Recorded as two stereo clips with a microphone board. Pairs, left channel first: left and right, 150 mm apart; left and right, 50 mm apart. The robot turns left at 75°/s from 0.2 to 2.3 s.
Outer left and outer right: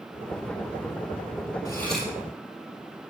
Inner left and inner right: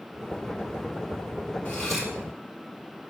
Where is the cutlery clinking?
25° left, 3.5 m; by 2.1 s 10° right, 3.5 m.